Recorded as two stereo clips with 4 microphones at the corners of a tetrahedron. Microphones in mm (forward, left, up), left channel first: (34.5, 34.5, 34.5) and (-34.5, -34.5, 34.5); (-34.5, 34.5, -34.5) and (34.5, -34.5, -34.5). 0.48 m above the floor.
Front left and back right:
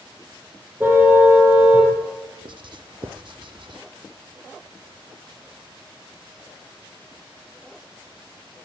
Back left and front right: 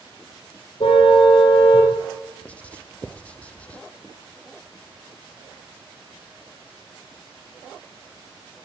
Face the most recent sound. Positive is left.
turn(degrees=-150)